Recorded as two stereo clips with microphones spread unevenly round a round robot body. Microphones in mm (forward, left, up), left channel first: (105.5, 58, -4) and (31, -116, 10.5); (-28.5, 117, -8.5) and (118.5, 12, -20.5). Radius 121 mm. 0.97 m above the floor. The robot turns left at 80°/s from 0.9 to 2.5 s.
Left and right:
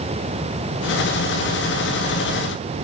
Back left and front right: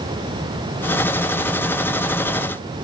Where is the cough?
No cough in this recording.